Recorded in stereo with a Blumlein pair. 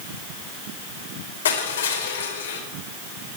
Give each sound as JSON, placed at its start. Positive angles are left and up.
{"t": 1.4, "sound": "crushing", "azimuth_deg": 65, "distance_m": 4.5}